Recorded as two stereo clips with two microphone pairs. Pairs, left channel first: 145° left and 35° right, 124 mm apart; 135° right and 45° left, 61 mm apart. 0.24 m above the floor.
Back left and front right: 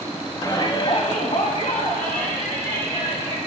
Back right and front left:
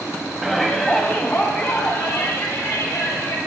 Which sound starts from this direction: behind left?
A shout, at 0.4 s.